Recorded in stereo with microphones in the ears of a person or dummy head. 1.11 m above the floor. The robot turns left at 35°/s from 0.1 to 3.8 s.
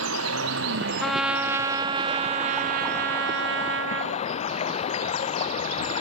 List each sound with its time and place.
0.0 s running water: 90° right; by 6.0 s 140° left
1.0 s a trumpet: straight ahead; by 4.2 s 100° right